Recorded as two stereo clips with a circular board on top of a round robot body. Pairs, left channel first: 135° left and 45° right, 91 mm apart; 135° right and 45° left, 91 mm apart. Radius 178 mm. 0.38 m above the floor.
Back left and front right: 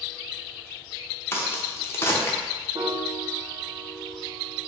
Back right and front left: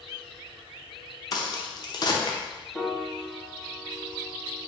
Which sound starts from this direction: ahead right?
A piano, at 2.8 s.